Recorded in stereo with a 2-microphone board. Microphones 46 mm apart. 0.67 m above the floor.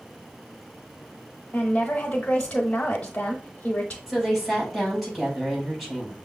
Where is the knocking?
No knocking in this recording.